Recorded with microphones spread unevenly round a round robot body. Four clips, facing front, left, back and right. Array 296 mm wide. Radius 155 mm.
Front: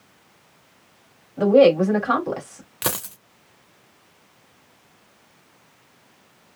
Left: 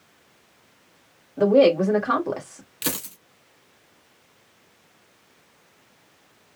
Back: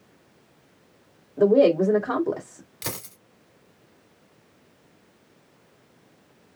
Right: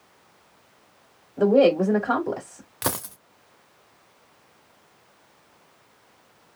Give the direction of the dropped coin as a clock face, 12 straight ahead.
1 o'clock.